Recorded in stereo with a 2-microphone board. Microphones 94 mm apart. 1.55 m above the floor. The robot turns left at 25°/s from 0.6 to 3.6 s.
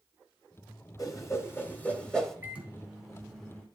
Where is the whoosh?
35° left (ahead or behind), 2.0 m; by 2.4 s 5° left (ahead or behind), 2.0 m.